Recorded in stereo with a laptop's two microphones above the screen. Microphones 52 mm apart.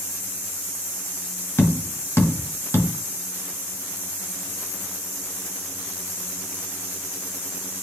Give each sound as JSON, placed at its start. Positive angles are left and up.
{"t": 1.6, "sound": "tapping", "side_deg": 60, "distance_m": 1.8}